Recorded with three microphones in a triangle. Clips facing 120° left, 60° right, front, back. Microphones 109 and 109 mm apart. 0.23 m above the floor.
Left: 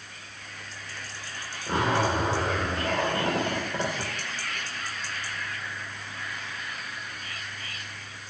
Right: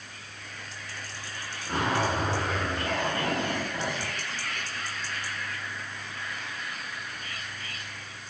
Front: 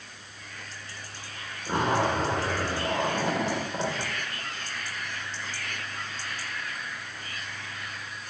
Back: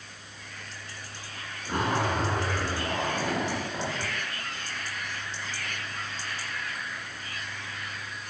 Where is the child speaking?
No child speaking in this recording.